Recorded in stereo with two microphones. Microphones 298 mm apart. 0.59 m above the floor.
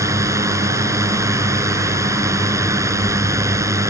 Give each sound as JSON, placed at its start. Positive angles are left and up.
{"t": 0.0, "sound": "a drone", "side_deg": -10}